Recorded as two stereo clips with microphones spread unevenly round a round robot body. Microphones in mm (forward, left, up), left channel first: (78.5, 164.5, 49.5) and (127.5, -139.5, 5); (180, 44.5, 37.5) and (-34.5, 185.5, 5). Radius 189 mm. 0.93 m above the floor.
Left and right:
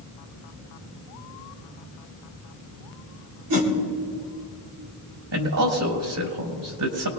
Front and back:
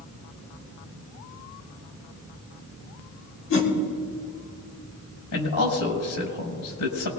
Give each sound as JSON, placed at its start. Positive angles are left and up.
{"t": 3.5, "sound": "a whoosh", "azimuth_deg": -90, "distance_m": 3.0}
{"t": 5.3, "sound": "a man speaking", "azimuth_deg": -60, "distance_m": 4.5}